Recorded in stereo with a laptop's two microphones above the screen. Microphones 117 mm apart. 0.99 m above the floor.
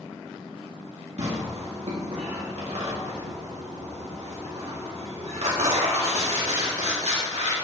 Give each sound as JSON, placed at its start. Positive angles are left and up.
{"t": 1.2, "sound": "tearing paper", "side_deg": -75, "distance_m": 1.9}